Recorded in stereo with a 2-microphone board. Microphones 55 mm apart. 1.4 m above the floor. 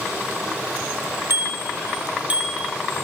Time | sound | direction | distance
1.3 | a bicycle bell | 55° right (ahead or behind) | 3.5 m